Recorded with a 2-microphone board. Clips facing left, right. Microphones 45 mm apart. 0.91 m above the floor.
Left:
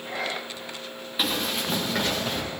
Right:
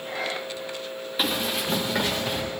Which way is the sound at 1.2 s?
Centre (ahead or behind).